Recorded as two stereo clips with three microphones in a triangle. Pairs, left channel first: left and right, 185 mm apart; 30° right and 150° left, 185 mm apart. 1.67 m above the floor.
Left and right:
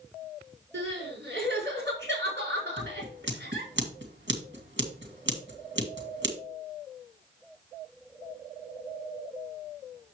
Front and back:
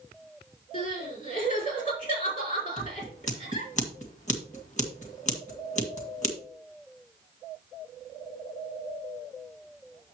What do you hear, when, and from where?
0.7 s crying: 75° right, 4.5 m
2.8 s scissors: 80° right, 2 m